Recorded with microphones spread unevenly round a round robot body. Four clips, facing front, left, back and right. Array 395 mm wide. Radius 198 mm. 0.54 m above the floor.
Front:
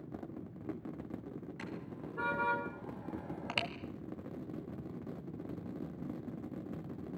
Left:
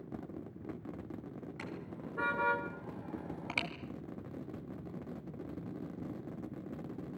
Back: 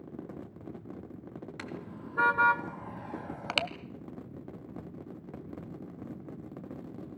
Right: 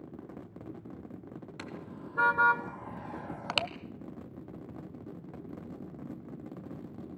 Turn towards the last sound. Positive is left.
turn(degrees=-90)